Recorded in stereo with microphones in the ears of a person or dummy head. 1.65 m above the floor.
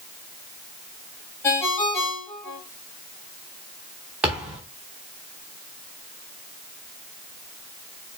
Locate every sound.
1.4 s a ringtone: 15° left (ahead or behind), 0.9 m
4.2 s a thud: 5° right (ahead or behind), 0.9 m